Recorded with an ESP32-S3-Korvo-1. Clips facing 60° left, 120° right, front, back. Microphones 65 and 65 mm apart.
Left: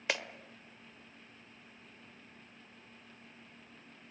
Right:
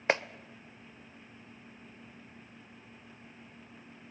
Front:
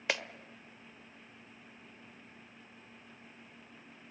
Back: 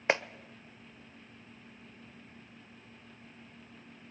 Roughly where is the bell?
No bell in this recording.